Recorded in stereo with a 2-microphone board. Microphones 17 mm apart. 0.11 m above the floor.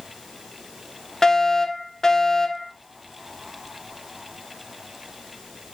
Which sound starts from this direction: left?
A fire alarm, at 1.2 s.